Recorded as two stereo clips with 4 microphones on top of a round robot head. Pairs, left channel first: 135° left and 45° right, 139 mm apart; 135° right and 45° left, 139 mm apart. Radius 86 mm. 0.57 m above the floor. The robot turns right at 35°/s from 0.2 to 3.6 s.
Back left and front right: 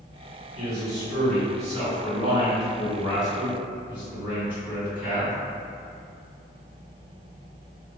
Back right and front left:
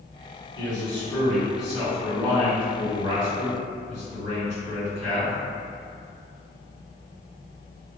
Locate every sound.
0.6 s a man speaking: 75° right, 1.7 m; by 5.3 s 30° left, 1.7 m